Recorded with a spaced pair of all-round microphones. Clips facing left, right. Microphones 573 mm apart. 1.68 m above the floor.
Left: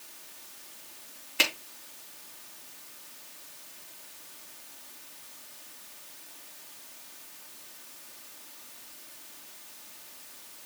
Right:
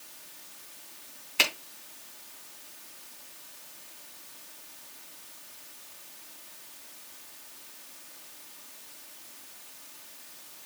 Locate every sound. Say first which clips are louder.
1.4 s a finger snap: left 1 dB; 30° right (ahead or behind), 3 m